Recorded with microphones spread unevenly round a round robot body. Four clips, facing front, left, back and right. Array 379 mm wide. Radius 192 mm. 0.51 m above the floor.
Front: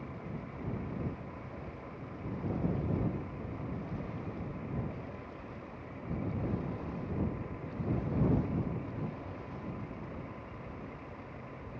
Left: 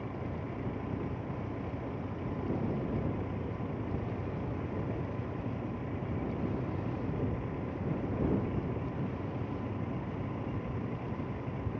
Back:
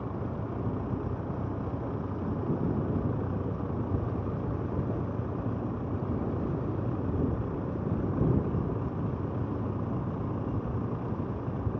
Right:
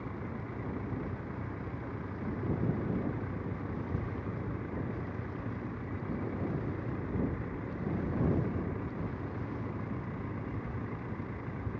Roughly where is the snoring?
I don't hear snoring.